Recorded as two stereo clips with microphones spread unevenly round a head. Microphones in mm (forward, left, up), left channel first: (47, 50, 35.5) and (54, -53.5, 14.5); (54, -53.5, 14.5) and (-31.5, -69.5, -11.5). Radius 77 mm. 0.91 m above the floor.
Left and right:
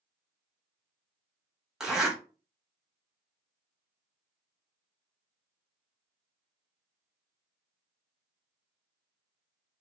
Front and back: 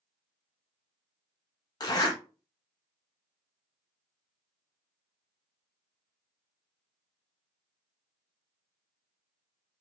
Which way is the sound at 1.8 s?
5° left.